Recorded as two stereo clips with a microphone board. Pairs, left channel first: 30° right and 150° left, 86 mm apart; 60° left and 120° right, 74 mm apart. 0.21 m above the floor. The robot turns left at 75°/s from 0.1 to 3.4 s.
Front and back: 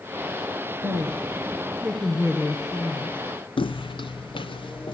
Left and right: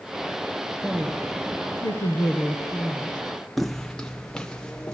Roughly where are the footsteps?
Ahead right.